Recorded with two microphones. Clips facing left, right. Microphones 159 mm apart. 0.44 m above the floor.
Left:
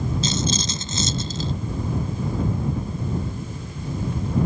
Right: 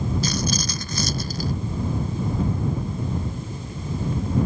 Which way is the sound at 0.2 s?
25° left (ahead or behind).